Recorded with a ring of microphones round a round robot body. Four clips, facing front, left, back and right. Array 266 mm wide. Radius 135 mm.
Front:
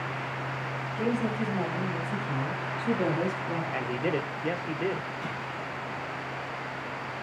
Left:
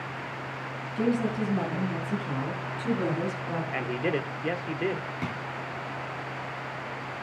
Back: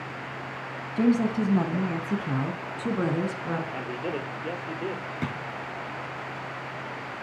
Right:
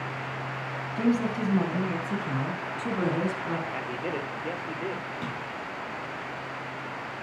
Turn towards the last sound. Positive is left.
turn(degrees=170)